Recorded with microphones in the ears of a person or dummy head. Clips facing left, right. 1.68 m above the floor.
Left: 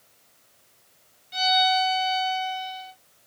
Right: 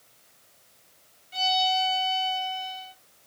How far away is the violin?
About 1.7 m.